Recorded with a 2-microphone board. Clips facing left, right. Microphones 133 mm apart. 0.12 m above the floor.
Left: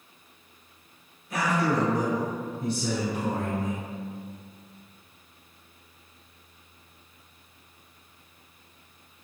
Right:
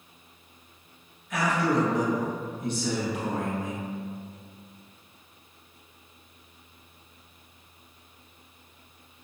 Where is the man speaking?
35° left (ahead or behind), 1.2 m.